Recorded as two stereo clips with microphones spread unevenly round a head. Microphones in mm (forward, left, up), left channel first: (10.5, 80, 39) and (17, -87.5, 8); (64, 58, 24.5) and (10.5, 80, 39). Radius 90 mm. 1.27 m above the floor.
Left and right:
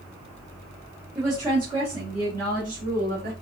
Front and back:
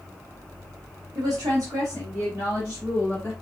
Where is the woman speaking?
170° right, 1.2 m; by 3.3 s 120° right, 2.5 m.